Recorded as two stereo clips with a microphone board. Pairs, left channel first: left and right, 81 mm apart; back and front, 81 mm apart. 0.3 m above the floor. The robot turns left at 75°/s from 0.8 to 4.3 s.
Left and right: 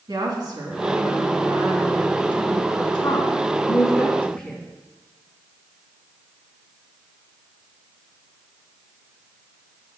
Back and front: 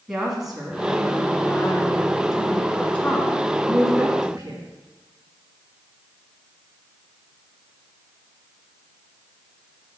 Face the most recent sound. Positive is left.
turn(degrees=10)